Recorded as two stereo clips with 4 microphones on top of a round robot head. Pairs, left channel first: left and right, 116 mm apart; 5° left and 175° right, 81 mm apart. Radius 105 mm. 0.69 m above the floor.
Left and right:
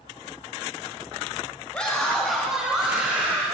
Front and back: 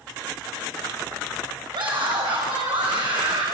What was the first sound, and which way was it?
A scream, 170° left.